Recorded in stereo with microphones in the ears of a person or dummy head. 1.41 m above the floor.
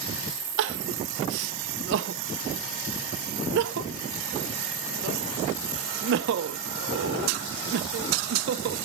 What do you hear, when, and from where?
0.6 s crying: 45° right (ahead or behind), 0.6 m